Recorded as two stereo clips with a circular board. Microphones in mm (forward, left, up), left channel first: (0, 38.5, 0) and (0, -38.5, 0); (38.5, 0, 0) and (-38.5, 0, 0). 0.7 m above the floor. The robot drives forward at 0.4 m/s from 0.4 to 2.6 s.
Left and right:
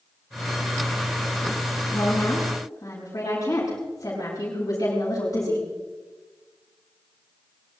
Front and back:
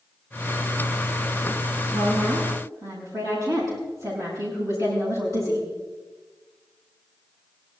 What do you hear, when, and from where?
1.9 s a woman speaking: 140° left, 6 m